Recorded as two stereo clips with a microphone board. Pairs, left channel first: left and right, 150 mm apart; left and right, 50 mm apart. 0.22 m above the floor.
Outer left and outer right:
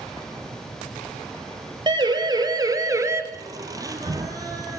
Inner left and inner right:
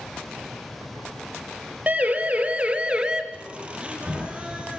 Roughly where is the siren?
Right.